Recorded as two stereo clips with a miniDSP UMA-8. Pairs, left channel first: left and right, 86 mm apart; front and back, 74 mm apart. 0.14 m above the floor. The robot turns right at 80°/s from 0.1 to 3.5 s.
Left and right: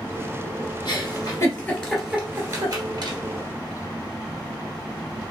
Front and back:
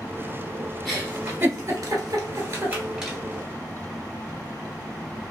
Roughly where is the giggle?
Left.